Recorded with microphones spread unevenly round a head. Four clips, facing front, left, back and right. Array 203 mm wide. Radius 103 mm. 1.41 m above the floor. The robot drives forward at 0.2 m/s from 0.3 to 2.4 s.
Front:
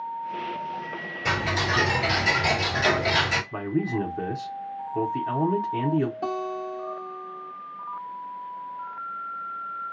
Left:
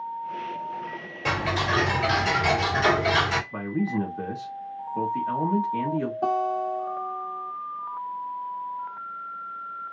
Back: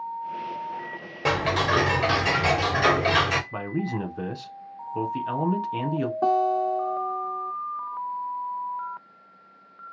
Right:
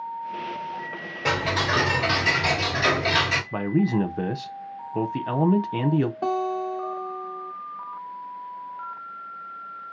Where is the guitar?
160° right, 1.5 m.